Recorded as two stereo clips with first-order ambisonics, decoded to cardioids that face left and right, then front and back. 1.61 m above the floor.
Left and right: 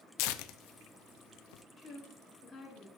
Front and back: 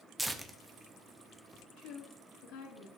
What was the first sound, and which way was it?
Tearing paper, 95° left.